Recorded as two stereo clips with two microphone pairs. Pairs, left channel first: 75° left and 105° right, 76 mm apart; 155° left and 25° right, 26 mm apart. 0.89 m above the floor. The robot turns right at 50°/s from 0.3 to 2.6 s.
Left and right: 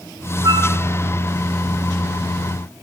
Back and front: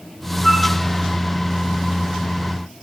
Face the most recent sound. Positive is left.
turn(degrees=-30)